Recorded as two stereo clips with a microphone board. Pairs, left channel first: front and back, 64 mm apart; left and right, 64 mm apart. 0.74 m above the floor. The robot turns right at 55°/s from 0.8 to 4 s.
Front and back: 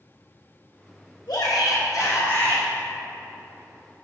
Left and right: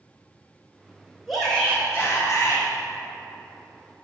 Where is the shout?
Straight ahead, 3.5 m; by 2.6 s 75° left, 3.5 m.